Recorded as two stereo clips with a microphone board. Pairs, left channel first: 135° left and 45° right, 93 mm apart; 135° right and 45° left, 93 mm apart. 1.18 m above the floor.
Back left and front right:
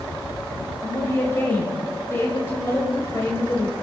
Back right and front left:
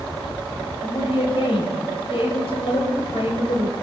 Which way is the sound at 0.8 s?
160° right.